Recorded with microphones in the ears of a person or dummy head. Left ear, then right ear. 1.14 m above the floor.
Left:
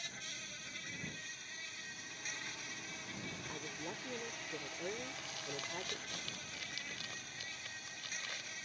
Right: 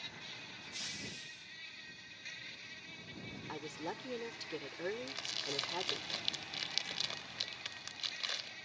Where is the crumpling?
40° right (ahead or behind).